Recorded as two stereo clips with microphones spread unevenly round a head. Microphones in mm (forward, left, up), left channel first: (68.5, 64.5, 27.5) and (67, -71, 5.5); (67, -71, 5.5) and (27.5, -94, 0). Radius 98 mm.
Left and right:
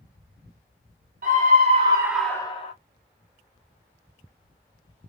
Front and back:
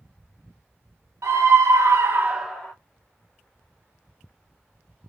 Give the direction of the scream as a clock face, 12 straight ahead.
5 o'clock.